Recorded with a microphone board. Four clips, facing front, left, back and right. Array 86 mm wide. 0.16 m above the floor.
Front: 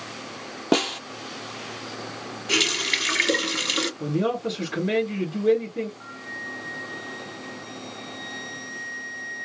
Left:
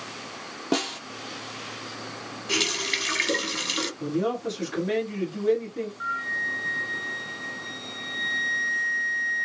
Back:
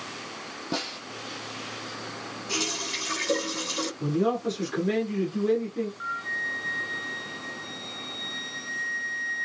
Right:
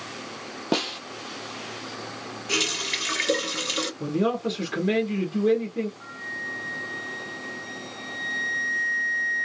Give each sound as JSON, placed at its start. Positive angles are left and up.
{"t": 0.7, "sound": "a snare drum", "azimuth_deg": -10, "distance_m": 0.7}
{"t": 2.5, "sound": "a running tap", "azimuth_deg": 5, "distance_m": 1.5}
{"t": 4.0, "sound": "a man speaking", "azimuth_deg": -55, "distance_m": 1.6}
{"t": 6.0, "sound": "a flute", "azimuth_deg": 130, "distance_m": 0.9}